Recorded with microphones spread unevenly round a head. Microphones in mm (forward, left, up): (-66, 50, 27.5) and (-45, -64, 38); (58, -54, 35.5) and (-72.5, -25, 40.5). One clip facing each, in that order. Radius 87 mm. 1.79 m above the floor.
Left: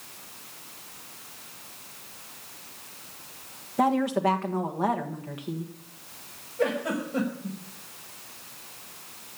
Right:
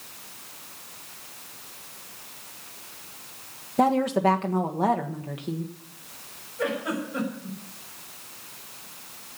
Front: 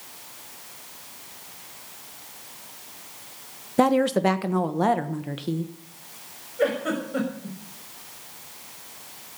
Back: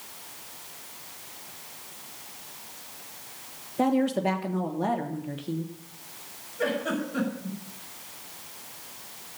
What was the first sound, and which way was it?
A woman speaking, 10° right.